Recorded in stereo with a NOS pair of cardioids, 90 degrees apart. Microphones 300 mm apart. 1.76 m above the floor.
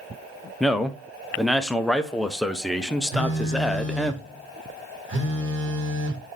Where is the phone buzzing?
40° right, 1.3 m.